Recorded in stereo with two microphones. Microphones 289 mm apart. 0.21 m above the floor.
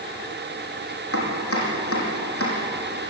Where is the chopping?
50° left (ahead or behind), 7 m.